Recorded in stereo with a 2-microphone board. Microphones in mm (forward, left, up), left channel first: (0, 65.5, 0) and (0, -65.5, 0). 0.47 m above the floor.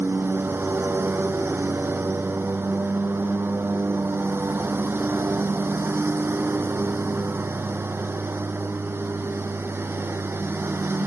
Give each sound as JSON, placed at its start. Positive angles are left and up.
{"t": 0.0, "sound": "a lawn mower", "side_deg": -15}